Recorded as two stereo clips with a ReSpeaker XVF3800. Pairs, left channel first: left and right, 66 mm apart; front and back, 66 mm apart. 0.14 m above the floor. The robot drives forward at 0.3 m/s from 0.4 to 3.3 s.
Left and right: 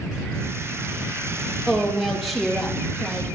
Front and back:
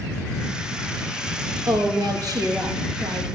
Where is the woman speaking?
Straight behind, 3 m.